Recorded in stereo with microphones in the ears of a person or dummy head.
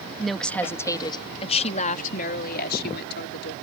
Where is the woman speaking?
Centre (ahead or behind); by 3.5 s 70° left (ahead or behind).